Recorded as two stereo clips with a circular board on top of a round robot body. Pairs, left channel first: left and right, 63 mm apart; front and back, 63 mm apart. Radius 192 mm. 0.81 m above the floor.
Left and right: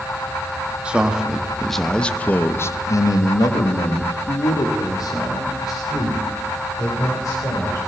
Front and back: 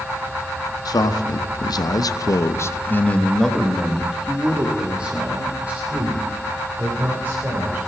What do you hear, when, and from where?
0.8 s a man speaking: 15° right, 1.6 m; by 7.8 s 120° left, 4 m